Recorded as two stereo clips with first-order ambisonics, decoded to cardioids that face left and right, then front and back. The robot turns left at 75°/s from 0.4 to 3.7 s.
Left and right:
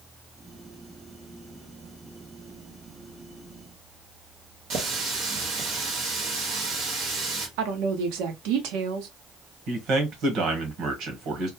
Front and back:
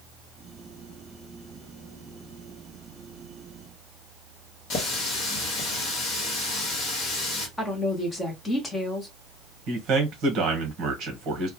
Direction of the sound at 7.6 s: 80° right.